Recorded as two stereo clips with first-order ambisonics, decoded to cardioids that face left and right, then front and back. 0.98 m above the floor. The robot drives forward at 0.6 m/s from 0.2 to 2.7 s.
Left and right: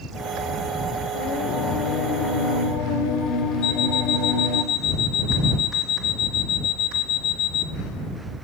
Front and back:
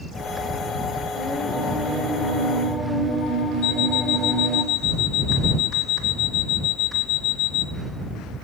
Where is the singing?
75° left, 2.5 m; by 4.6 s 100° left, 2.5 m.